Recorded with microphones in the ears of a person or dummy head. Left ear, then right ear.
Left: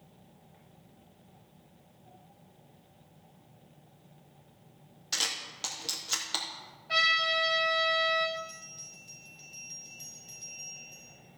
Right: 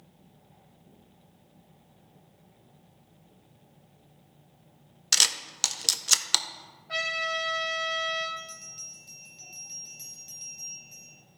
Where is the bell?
30° right (ahead or behind), 4 m.